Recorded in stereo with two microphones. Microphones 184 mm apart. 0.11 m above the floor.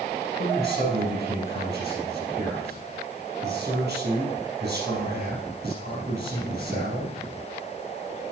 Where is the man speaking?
65° right (ahead or behind), 4 m.